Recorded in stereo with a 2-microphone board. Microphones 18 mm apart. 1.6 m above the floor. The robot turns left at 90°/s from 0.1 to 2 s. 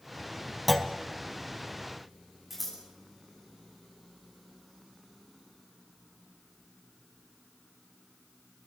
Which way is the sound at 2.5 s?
5° right (ahead or behind).